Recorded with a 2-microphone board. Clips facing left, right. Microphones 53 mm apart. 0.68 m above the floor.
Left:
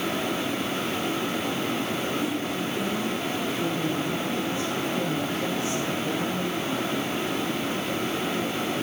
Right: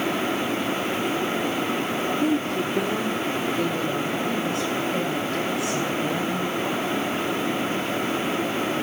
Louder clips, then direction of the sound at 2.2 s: Right 5 dB; 45° right (ahead or behind).